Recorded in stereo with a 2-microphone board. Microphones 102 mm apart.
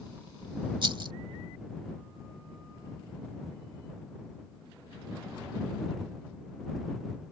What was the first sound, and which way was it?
A rattle, 50° right (ahead or behind).